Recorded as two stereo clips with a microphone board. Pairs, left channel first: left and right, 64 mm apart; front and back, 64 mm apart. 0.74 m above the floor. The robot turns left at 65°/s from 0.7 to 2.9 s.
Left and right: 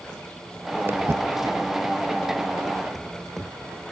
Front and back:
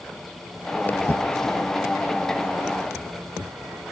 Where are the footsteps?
50° right, 0.9 m; by 3.8 s 140° right, 2.5 m.